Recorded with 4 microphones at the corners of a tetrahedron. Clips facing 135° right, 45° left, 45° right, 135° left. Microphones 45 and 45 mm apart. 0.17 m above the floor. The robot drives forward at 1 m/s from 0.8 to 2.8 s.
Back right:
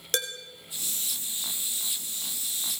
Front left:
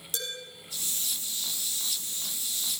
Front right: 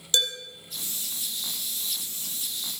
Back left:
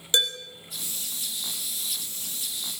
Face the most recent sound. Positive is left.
turn(degrees=-170)